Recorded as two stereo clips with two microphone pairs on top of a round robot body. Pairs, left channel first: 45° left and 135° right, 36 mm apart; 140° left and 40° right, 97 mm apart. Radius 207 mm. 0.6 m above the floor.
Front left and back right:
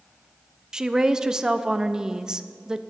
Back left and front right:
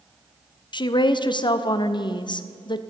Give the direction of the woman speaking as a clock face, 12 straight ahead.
7 o'clock.